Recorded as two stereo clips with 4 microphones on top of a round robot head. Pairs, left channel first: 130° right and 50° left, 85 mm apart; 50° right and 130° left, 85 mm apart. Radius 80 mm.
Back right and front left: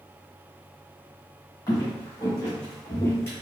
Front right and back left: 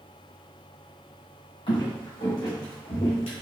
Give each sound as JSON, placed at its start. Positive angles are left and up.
{"t": 1.7, "sound": "footsteps", "azimuth_deg": -75, "distance_m": 1.7}